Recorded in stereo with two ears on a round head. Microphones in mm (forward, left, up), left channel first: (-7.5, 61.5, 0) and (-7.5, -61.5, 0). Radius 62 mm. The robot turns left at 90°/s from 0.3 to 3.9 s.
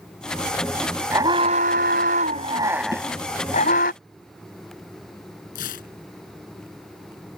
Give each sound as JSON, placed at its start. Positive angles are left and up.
{"t": 1.1, "sound": "an alarm", "azimuth_deg": -15}
{"t": 2.9, "sound": "a snare drum", "side_deg": -25}
{"t": 5.5, "sound": "tearing paper", "side_deg": 65}